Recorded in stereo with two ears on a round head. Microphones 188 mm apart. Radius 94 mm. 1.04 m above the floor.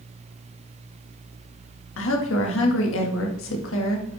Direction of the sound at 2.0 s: 65° left (ahead or behind).